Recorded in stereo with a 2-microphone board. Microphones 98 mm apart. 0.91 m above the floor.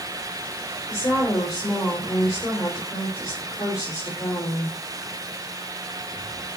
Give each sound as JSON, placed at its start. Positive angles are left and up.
{"t": 0.9, "sound": "a woman speaking", "side_deg": 35, "distance_m": 4.0}